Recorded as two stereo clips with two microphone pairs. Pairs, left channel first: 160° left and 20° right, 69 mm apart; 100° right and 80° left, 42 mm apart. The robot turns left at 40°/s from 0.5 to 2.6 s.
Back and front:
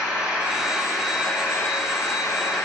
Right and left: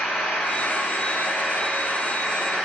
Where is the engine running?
95° right, 5 m; by 2.6 s 175° right, 5 m.